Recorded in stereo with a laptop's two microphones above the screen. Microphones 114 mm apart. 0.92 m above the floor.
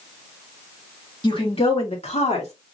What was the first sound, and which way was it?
A woman speaking, 45° left (ahead or behind).